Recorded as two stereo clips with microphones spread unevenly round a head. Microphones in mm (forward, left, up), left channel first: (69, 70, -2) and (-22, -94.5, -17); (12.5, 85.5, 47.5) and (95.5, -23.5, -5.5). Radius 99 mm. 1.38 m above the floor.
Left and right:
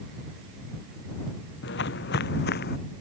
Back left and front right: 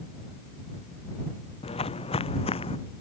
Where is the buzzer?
No buzzer in this recording.